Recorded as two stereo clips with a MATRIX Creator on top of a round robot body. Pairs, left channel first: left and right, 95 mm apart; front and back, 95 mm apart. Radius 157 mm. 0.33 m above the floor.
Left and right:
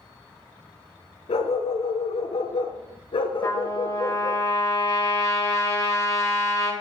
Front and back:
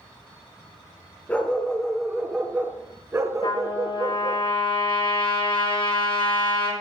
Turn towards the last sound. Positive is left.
turn(degrees=35)